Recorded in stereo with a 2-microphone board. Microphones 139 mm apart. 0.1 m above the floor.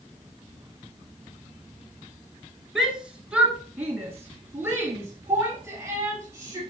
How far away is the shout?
About 1.5 m.